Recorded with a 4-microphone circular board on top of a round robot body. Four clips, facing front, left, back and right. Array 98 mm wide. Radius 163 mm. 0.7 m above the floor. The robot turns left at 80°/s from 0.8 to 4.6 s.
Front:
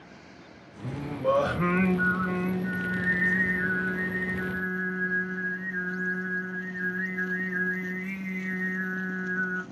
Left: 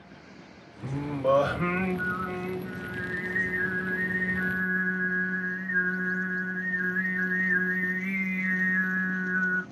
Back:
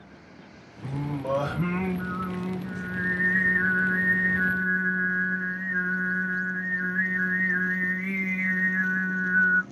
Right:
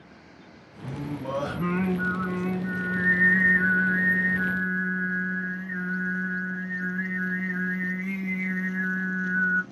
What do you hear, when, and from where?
0.8 s singing: 90° left, 2 m; by 9.6 s 150° left, 2 m